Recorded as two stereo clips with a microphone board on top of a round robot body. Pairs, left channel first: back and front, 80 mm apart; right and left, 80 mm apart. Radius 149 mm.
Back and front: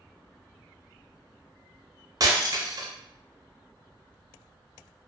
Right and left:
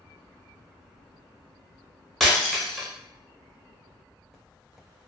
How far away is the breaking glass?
About 0.9 m.